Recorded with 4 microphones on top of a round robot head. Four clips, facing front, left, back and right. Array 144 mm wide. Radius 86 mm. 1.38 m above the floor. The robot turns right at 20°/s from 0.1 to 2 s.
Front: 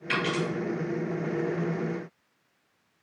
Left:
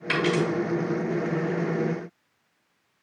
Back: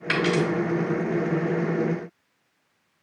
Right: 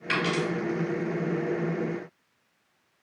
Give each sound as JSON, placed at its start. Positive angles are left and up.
{"t": 0.1, "sound": "a dropped coin", "azimuth_deg": 170, "distance_m": 1.9}